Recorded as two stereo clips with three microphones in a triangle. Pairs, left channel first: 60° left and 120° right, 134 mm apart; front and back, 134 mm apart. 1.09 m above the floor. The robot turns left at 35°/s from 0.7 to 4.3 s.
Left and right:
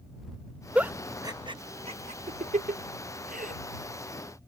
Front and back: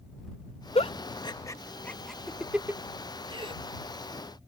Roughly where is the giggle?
Ahead right.